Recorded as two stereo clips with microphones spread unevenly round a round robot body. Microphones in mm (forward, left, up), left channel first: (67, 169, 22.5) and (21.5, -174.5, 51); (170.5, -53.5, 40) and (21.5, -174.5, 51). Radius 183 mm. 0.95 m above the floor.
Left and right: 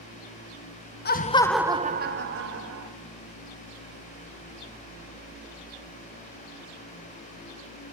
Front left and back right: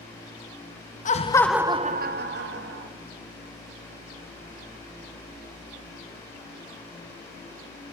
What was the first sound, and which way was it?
Laughter, 40° left.